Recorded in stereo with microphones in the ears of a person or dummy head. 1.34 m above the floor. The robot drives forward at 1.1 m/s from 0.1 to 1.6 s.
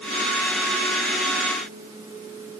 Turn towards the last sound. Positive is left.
No sound to turn to.